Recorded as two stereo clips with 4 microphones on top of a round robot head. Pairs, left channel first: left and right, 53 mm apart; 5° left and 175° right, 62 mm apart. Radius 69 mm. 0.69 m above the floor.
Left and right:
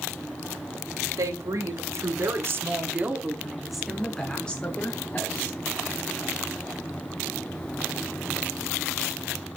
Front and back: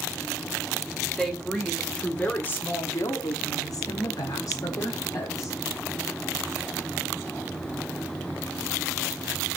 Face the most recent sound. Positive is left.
turn(degrees=35)